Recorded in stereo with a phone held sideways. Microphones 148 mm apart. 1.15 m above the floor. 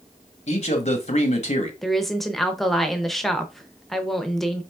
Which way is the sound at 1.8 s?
Centre (ahead or behind).